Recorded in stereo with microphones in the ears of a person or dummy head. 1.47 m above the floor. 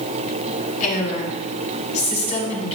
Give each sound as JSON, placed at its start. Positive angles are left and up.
{"t": 0.8, "sound": "a woman speaking", "side_deg": 45, "distance_m": 4.0}